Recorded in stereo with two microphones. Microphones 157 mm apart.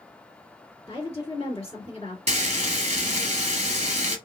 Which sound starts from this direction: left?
A woman speaking, at 0.9 s.